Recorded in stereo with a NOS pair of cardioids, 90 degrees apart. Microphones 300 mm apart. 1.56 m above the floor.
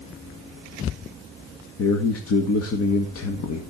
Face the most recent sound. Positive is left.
turn(degrees=55)